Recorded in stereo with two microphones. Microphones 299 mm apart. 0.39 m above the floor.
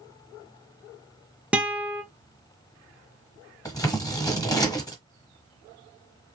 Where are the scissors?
10° left (ahead or behind), 1.4 m.